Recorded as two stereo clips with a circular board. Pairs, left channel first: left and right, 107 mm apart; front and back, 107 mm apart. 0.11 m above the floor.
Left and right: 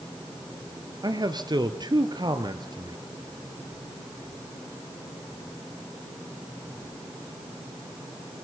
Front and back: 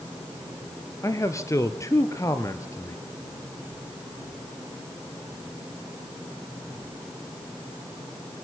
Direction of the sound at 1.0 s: 55° right.